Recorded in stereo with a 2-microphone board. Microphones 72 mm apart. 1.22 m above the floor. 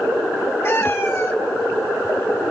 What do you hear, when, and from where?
0.6 s a cat meowing: 40° left (ahead or behind), 1.2 m